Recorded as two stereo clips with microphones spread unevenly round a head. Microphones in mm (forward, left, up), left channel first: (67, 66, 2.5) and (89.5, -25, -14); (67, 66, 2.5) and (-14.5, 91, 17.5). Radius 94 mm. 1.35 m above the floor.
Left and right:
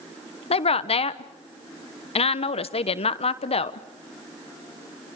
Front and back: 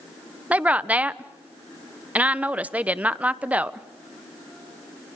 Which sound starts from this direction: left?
A woman speaking, at 0.5 s.